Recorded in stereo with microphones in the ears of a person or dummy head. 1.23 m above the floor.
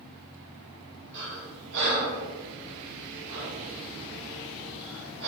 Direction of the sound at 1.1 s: 65° right (ahead or behind).